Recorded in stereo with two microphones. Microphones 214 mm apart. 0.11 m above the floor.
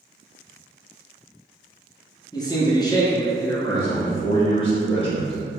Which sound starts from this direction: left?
A man speaking, at 3.7 s.